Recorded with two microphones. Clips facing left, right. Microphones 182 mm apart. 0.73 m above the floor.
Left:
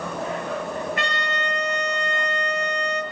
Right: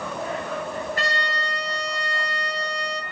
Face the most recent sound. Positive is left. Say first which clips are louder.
# left 1 dB
turn(degrees=-35)  # may be behind; listen again after turning